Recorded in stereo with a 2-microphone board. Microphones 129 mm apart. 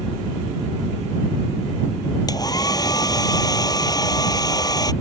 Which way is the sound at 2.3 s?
30° left (ahead or behind).